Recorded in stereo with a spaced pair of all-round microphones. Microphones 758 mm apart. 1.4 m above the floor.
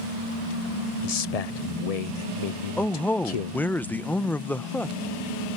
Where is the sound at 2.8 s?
5° left (ahead or behind).